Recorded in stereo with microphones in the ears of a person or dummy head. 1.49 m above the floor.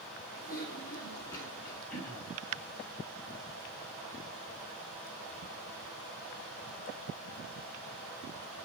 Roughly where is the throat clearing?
Centre.